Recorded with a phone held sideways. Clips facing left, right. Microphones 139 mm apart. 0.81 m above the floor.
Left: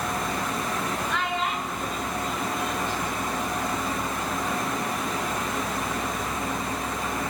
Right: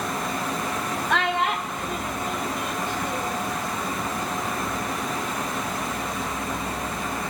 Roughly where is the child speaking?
Right.